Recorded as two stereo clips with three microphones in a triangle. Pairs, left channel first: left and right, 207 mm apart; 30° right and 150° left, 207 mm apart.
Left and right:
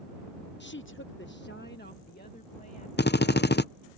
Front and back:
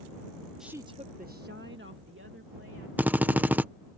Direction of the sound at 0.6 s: 60° left.